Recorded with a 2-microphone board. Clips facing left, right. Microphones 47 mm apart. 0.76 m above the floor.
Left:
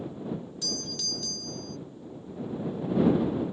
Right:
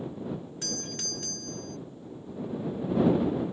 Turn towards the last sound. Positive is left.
turn(degrees=-45)  # may be behind; listen again after turning